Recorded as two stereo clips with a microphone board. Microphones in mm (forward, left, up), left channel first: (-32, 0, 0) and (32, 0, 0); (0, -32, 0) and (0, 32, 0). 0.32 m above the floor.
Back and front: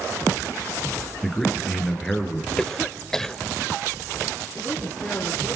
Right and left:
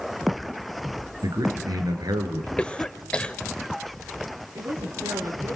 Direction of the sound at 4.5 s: 115° left.